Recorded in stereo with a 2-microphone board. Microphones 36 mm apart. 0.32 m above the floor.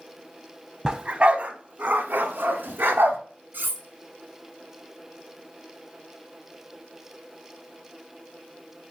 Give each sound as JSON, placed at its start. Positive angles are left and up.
{"t": 0.8, "sound": "a dog barking", "side_deg": -20, "distance_m": 0.6}
{"t": 3.5, "sound": "cutlery clinking", "side_deg": -70, "distance_m": 1.8}